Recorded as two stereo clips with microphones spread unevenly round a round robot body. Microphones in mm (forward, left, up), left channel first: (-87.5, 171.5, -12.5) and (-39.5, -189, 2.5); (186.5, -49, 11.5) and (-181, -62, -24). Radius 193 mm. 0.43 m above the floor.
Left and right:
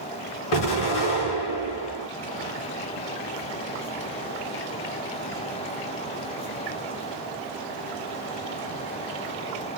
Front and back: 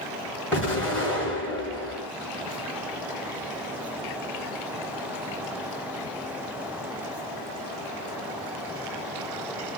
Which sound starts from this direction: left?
An explosion, at 0.5 s.